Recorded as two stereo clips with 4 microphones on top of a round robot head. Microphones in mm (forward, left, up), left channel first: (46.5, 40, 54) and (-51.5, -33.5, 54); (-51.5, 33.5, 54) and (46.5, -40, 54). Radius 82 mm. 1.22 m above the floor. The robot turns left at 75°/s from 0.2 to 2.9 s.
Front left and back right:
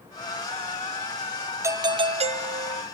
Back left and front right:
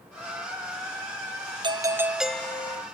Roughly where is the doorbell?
Right.